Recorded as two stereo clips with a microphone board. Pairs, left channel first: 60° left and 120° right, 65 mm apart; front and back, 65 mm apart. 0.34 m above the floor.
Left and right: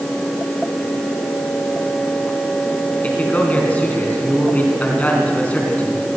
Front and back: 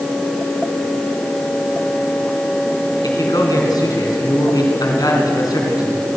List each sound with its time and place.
3.0 s a man speaking: 5° right, 4 m